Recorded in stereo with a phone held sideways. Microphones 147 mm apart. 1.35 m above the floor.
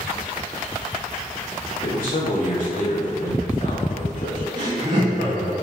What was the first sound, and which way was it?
A man speaking, 65° left (ahead or behind).